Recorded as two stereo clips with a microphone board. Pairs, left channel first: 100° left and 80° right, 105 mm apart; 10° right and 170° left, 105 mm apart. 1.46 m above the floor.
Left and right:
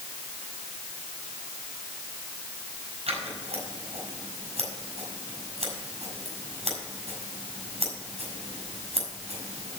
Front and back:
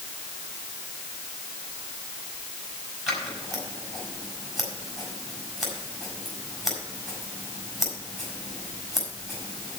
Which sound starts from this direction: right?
Scissors, at 3.1 s.